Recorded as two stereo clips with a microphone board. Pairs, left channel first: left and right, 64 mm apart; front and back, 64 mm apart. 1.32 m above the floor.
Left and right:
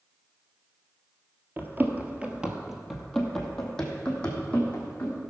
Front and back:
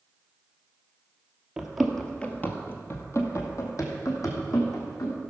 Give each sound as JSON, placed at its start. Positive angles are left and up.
{"t": 1.6, "sound": "running footsteps", "azimuth_deg": -110, "distance_m": 1.5}